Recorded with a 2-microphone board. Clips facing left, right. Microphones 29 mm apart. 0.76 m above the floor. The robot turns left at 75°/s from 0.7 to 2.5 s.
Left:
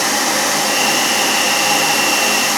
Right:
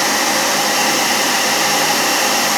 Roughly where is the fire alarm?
I don't hear a fire alarm.